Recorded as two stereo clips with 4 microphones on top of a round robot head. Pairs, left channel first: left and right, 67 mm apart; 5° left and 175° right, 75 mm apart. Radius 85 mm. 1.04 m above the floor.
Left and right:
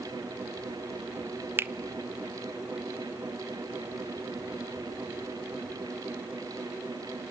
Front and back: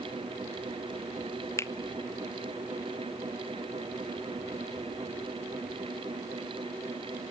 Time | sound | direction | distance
1.6 | a finger snap | 40° right | 0.8 m